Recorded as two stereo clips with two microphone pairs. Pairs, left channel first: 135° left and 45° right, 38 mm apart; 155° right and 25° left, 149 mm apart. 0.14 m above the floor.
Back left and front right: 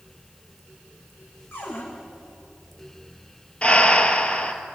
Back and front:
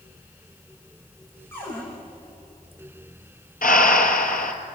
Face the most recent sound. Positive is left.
turn(degrees=-160)